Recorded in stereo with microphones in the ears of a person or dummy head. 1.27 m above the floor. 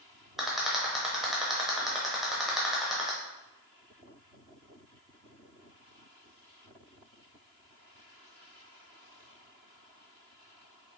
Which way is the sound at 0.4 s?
5° left (ahead or behind).